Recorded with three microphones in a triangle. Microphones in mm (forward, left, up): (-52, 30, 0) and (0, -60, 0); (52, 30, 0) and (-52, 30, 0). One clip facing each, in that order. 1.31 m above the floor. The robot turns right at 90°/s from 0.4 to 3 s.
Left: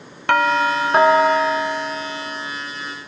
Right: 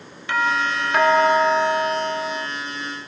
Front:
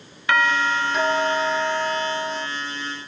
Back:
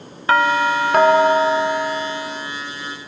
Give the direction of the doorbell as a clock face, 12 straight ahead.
8 o'clock.